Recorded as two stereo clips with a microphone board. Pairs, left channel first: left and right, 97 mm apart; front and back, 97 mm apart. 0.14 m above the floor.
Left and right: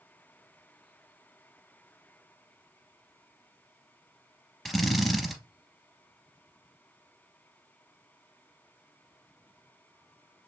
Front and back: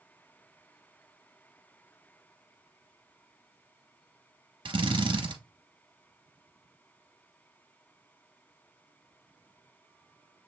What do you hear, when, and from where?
4.7 s a drill: straight behind, 1.0 m